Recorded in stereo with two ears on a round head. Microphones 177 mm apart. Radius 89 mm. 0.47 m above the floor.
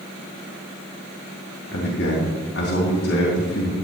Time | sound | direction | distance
1.7 | a man speaking | 70° left (ahead or behind) | 3 m